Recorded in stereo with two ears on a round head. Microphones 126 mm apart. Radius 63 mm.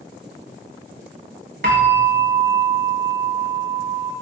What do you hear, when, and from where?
1.6 s a bell: 65° right (ahead or behind), 1.1 m